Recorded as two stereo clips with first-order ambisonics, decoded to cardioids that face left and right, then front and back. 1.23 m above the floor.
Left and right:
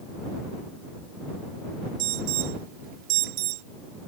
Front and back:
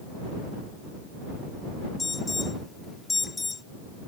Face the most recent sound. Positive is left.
turn(degrees=-75)